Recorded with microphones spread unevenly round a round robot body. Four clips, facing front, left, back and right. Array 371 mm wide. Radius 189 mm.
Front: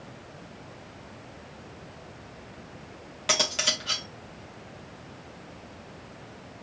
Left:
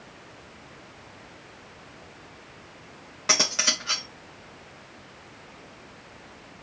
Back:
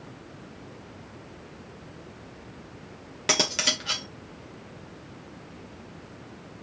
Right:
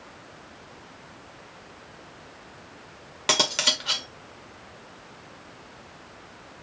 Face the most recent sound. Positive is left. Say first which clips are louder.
# right 2 dB, back 1 dB
turn(degrees=-160)